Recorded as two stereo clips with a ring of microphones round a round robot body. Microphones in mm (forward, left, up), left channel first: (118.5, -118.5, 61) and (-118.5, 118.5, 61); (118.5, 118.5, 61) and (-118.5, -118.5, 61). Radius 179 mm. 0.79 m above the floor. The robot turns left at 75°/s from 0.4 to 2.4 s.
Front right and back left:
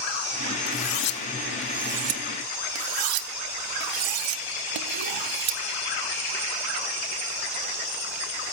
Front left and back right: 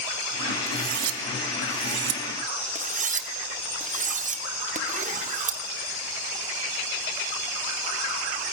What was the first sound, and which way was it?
Cutlery clinking, 75° right.